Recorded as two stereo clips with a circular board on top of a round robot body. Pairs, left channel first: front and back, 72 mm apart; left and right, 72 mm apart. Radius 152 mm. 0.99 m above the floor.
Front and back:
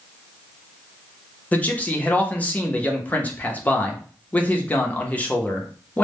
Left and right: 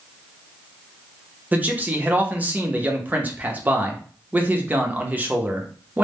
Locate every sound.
1.5 s a man speaking: 45° right, 0.8 m